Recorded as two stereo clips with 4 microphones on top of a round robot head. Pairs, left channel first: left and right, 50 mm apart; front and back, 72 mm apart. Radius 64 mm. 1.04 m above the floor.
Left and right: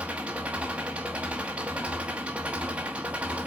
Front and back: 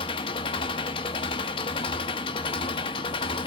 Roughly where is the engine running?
Ahead.